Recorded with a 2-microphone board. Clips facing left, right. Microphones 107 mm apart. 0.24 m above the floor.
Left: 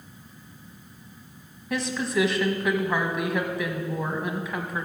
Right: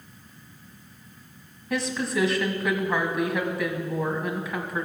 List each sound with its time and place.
1.7 s a woman speaking: centre (ahead or behind), 1.3 m